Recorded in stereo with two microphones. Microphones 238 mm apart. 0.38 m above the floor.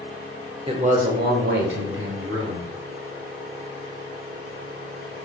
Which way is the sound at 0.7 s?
25° right (ahead or behind).